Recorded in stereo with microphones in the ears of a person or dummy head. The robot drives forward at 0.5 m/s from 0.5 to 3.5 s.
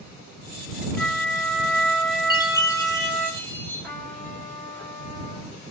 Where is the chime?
30° left (ahead or behind), 0.7 m; by 3.9 s 15° left (ahead or behind), 1.2 m.